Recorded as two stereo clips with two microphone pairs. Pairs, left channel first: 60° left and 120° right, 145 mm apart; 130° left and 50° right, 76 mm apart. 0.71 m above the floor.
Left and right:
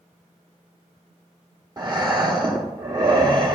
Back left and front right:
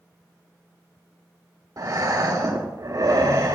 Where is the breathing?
70° right, 2.0 m.